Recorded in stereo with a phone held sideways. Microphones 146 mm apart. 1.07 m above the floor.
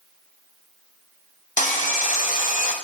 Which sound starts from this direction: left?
Sawing, at 1.6 s.